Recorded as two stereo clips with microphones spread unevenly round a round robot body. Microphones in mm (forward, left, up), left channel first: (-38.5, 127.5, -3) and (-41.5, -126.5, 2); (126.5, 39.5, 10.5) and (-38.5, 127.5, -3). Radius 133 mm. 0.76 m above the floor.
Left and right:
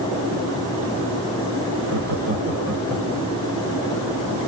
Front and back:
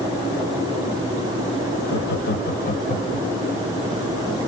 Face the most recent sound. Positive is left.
turn(degrees=35)